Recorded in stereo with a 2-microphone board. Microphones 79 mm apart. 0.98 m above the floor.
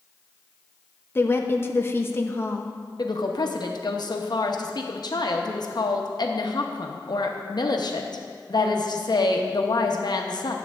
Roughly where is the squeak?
I don't hear a squeak.